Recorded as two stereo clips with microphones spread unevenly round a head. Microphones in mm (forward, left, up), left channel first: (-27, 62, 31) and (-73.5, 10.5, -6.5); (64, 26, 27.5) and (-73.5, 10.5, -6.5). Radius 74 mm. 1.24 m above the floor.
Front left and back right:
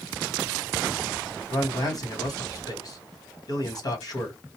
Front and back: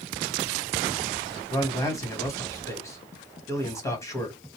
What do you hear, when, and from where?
1.5 s a man speaking: 75° left, 1.3 m